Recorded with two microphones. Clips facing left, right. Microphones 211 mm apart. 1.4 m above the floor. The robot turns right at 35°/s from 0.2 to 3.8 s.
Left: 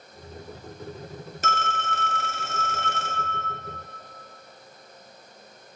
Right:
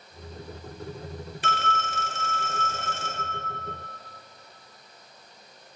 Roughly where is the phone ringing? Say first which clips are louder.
Left 1 dB; ahead left.